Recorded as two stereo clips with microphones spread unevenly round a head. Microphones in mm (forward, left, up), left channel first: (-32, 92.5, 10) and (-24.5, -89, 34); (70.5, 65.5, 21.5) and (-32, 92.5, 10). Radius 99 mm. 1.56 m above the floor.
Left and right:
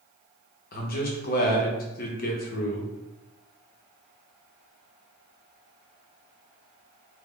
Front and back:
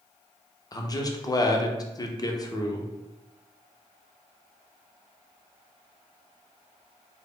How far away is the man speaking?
About 0.6 m.